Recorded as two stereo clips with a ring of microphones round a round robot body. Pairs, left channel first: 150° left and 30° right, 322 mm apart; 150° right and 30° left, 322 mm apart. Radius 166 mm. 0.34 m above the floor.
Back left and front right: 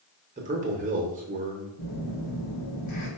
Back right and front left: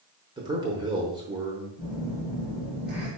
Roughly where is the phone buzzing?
Left.